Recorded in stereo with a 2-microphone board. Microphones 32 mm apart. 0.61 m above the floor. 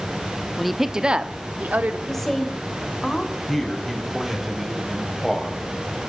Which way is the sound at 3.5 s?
Centre (ahead or behind).